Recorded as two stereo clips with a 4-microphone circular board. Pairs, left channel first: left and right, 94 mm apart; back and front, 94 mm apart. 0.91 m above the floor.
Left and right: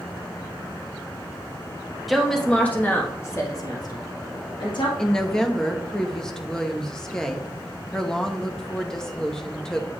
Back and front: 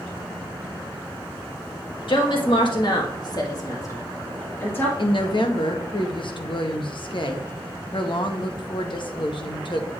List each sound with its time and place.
2.1 s a woman speaking: straight behind, 1.4 m; by 4.9 s 115° left, 2.0 m
5.0 s a woman speaking: 170° left, 0.9 m